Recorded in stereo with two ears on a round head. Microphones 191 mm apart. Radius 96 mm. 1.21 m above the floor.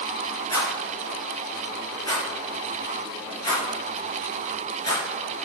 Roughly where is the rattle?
Centre.